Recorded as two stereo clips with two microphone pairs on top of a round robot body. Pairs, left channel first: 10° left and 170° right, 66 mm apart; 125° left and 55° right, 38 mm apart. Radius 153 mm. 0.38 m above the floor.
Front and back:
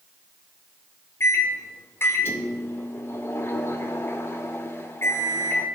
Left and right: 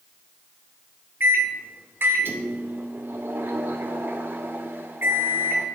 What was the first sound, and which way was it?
A microwave, 45° right.